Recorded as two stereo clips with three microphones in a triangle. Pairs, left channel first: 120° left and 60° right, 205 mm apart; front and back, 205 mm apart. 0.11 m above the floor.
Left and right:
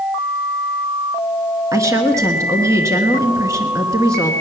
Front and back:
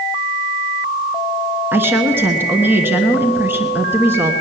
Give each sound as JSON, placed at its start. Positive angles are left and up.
{"t": 1.7, "sound": "a woman speaking", "azimuth_deg": -115, "distance_m": 1.2}